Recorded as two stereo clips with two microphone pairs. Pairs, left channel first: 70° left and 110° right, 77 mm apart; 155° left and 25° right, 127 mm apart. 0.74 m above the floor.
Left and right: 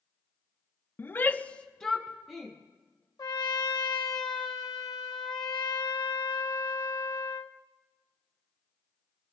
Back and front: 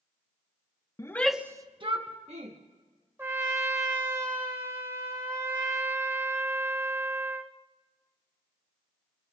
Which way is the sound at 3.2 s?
45° left.